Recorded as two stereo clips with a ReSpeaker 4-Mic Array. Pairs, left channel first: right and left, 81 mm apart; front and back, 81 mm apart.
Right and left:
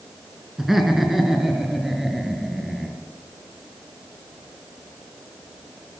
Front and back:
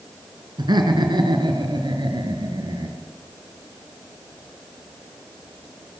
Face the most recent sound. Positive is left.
turn(degrees=175)